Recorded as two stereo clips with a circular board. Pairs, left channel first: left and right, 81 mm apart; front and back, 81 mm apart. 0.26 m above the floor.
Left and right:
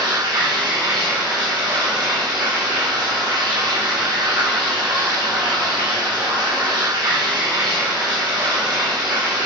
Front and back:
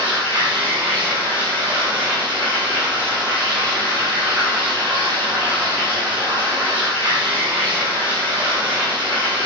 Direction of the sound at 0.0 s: 110° right.